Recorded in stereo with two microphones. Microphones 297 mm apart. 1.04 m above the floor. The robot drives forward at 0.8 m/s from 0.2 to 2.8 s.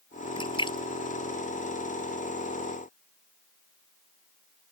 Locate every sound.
0.4 s a splash: 15° left (ahead or behind)